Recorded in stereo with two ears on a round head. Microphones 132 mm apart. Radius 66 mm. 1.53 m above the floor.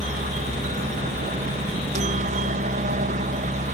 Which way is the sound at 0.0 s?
55° right (ahead or behind).